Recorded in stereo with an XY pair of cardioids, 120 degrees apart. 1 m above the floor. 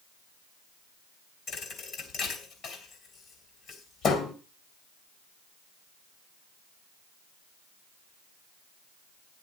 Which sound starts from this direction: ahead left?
A thud, at 1.5 s.